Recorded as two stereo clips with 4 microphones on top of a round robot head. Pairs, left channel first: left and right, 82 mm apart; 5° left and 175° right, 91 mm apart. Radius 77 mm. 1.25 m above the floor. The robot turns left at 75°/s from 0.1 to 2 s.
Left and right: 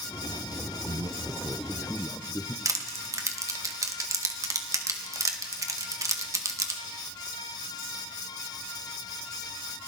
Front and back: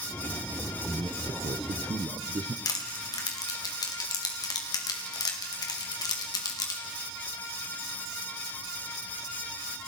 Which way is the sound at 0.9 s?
115° right.